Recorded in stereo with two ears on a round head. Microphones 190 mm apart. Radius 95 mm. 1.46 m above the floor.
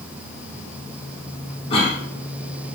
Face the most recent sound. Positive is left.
turn(degrees=25)  # may be behind; listen again after turning